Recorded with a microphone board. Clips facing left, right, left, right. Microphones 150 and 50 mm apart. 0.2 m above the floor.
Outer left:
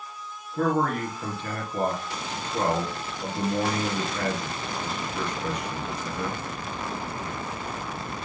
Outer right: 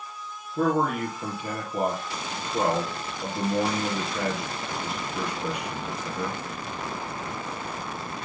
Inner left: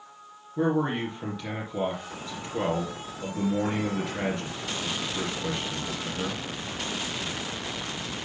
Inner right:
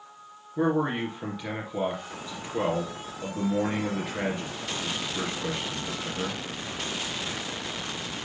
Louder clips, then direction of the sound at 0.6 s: Outer right 1 dB, even; 15° right (ahead or behind).